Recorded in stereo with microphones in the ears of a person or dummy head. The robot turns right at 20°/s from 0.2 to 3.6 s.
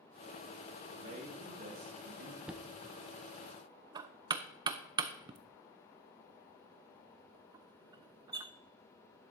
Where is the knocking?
5° right (ahead or behind), 0.5 m; by 8.5 s 25° right (ahead or behind), 0.5 m.